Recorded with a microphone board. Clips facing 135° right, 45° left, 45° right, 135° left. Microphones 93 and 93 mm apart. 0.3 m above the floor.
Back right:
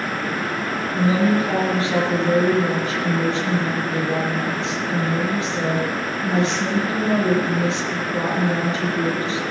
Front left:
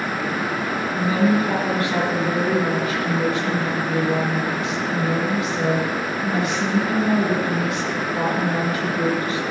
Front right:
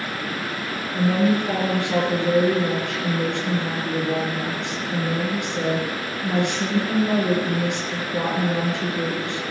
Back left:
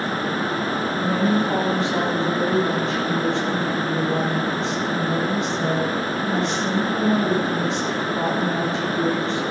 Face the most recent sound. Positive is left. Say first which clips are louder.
# back right 1 dB, front right 2 dB
turn(degrees=-75)